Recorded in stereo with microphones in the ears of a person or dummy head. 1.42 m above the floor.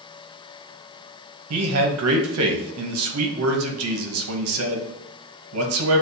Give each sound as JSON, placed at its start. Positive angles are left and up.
{"t": 1.5, "sound": "a man speaking", "side_deg": -80, "distance_m": 0.8}